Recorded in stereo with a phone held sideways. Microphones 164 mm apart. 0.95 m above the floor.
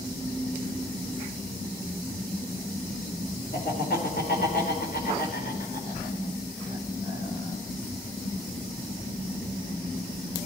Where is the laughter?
75° left (ahead or behind), 3.5 m; by 7.6 s 60° left (ahead or behind), 4.5 m.